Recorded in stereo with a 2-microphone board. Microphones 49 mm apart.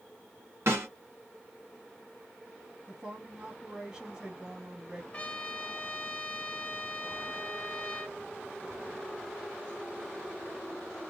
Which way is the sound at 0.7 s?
70° right (ahead or behind).